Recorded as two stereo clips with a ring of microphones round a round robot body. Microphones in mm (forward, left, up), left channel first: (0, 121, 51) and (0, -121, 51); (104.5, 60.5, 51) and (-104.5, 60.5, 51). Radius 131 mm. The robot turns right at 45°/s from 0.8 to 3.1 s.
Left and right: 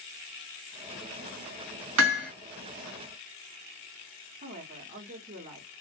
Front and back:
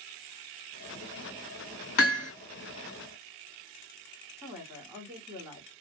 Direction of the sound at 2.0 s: 55° right.